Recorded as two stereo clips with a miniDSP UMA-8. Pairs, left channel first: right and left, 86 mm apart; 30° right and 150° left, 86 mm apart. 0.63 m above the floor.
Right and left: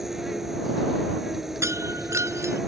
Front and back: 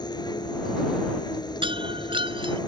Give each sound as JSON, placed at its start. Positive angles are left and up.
{"t": 0.0, "sound": "an insect", "azimuth_deg": 5}
{"t": 1.6, "sound": "breaking glass", "azimuth_deg": 145}